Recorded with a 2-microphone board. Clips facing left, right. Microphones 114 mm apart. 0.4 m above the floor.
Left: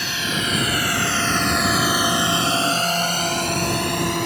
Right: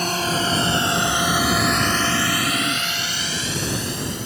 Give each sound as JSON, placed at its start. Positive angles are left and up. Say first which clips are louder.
{"t": 0.0, "sound": "a drone", "louder": "right 4 dB", "side_deg": -40}
{"t": 1.0, "sound": "snoring", "louder": "right 1 dB", "side_deg": 0}